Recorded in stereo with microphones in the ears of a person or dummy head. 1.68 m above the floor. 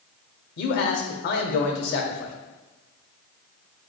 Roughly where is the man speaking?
Left.